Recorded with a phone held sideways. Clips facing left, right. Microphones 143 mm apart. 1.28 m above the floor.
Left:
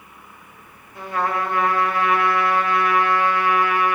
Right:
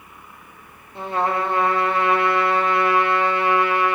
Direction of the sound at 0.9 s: 25° right (ahead or behind).